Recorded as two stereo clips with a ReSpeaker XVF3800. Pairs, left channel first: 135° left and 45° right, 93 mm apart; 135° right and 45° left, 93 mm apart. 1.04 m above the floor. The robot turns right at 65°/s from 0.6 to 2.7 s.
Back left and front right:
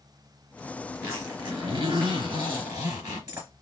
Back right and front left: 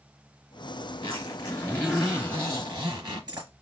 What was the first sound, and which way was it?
A zipper, 110° right.